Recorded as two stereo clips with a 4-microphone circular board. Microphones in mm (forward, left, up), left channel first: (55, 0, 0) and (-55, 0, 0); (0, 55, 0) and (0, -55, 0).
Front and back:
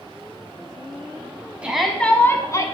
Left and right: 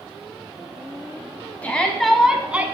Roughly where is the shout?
Behind left.